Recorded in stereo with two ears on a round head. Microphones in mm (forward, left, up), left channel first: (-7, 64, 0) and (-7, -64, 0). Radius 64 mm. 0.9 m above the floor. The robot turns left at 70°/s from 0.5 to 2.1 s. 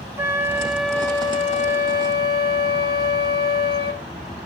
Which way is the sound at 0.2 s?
160° right.